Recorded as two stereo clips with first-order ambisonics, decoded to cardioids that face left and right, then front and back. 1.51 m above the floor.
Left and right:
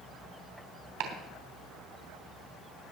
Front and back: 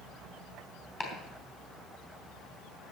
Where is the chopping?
75° right, 3 m.